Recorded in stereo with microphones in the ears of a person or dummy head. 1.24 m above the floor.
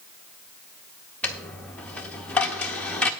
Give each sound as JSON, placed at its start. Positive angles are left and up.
{"t": 1.2, "sound": "a dropped coin", "side_deg": 5, "distance_m": 0.7}